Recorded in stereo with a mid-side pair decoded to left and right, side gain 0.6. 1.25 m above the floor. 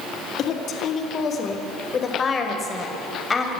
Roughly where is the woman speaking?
Ahead left.